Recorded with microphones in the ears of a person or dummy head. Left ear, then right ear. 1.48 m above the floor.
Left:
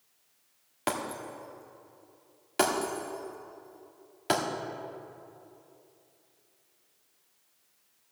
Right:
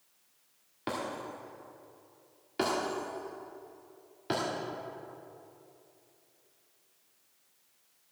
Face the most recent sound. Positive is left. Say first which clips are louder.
# left 3 dB
turn(degrees=35)  # may be behind; listen again after turning